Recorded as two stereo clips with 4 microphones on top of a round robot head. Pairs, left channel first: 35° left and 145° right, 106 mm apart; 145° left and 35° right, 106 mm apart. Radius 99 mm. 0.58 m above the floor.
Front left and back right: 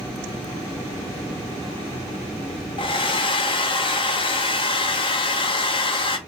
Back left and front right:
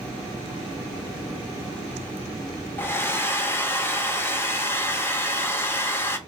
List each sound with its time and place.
2.8 s a hair dryer: 75° left, 0.9 m